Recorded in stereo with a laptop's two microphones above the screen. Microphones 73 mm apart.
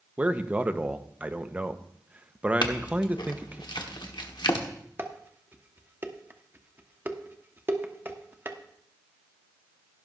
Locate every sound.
0.2 s a man speaking: 20° right (ahead or behind), 0.9 m
2.6 s a clink: 85° left, 1.3 m
5.0 s dishes clattering: 30° right (ahead or behind), 1.3 m